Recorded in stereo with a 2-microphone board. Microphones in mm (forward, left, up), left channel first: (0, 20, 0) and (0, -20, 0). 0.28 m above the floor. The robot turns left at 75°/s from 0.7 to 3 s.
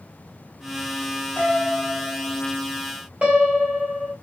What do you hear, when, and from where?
1.4 s a piano: 25° left, 2.5 m; by 2.4 s 55° right, 2.5 m
3.2 s a piano: 40° right (ahead or behind), 1.3 m